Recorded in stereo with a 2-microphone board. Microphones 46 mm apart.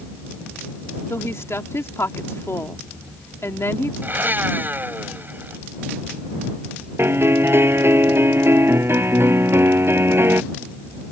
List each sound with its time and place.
1.1 s a woman speaking: 70° left (ahead or behind)
4.0 s a blender: 45° right (ahead or behind)
7.0 s a piano: 55° right (ahead or behind)